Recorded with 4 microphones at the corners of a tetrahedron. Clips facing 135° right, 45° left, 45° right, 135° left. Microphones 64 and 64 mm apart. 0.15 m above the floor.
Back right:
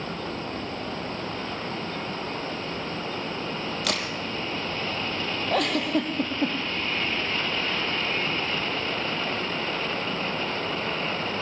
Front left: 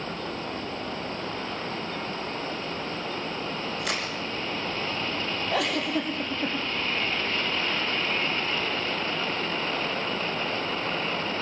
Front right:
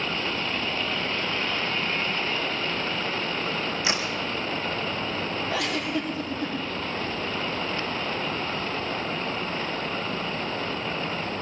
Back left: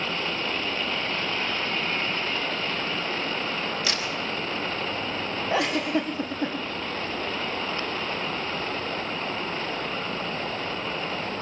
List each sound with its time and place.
3.8 s a crack: 110° right, 2.5 m
5.5 s a giggle: 165° right, 3.5 m